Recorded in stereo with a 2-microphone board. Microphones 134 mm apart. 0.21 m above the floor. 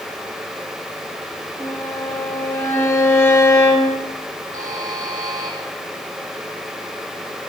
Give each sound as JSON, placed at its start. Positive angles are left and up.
{"t": 1.6, "sound": "a violin", "side_deg": 15, "distance_m": 5.0}
{"t": 4.5, "sound": "a buzzer", "side_deg": -80, "distance_m": 7.5}